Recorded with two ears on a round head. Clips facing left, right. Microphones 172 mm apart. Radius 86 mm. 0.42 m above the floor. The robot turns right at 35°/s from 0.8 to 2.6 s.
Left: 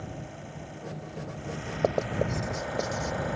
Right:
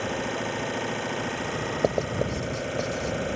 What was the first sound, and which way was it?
An engine running, 95° right.